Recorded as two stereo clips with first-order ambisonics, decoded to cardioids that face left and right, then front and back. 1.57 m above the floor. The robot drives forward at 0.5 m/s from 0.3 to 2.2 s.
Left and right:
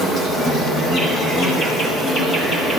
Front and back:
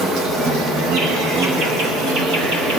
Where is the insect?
145° left, 3.5 m; by 2.8 s 155° left, 4 m.